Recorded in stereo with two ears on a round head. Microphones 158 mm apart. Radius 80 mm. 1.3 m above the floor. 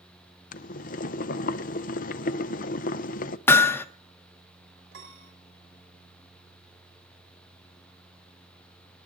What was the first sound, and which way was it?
Boiling, 45° left (ahead or behind).